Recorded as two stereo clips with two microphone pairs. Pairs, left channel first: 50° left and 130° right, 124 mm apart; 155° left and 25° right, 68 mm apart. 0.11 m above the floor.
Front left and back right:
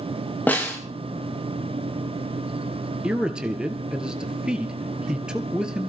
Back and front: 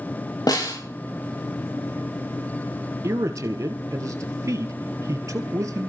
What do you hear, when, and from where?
0.5 s a snare drum: 125° left, 4 m
3.0 s a man speaking: 45° right, 2.0 m